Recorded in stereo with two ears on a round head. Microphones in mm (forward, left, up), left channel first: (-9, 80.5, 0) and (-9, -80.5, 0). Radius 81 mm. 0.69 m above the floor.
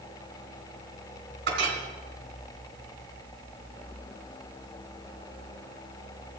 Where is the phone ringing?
No phone ringing in this recording.